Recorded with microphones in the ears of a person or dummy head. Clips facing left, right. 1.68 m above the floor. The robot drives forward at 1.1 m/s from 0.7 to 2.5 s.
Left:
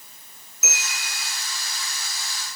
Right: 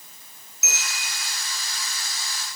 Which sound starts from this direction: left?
A bell, at 0.6 s.